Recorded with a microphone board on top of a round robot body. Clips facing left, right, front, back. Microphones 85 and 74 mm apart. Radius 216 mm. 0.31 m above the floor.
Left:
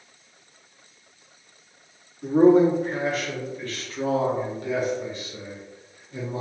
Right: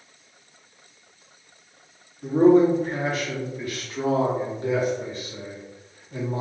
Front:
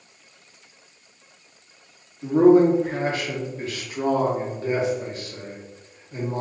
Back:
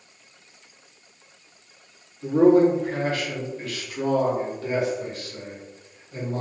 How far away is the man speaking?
About 1.6 m.